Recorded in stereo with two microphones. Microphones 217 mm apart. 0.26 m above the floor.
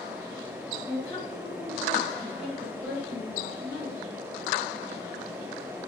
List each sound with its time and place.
0.9 s a woman speaking: 20° left (ahead or behind), 3.5 m; by 4.0 s 45° left (ahead or behind), 4.5 m